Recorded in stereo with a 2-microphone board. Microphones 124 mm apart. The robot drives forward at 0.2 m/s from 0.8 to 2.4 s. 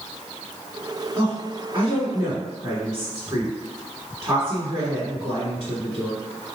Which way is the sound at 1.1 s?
25° right (ahead or behind).